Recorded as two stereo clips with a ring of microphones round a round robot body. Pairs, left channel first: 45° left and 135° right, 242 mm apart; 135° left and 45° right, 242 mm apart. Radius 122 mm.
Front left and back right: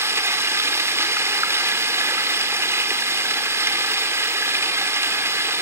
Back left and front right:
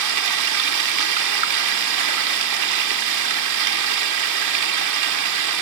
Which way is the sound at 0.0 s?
55° right.